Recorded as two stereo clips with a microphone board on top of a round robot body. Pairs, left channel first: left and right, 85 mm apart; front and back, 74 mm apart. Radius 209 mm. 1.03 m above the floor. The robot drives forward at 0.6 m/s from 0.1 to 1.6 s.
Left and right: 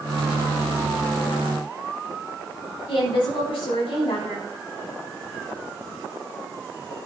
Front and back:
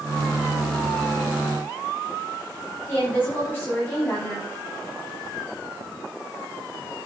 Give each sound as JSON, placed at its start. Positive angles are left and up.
{"t": 2.9, "sound": "a woman speaking", "azimuth_deg": 65, "distance_m": 7.0}